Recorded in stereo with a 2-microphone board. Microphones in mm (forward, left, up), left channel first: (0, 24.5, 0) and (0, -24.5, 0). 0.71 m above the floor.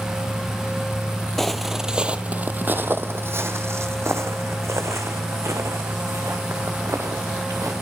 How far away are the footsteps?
About 1.1 m.